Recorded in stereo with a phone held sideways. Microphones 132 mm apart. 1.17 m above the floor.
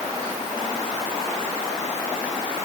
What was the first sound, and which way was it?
Only background noise.